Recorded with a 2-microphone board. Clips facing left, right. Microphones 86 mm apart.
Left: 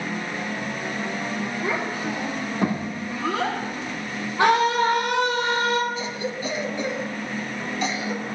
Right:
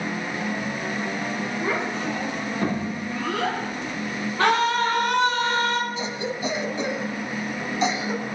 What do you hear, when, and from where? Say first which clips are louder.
1.6 s a child speaking: right 1 dB; centre (ahead or behind), 3.5 m; by 3.6 s 30° left (ahead or behind), 6 m
4.4 s a scream: left 2 dB; 15° left (ahead or behind), 4.5 m
6.0 s a cough: right 1 dB; 20° right (ahead or behind), 1.1 m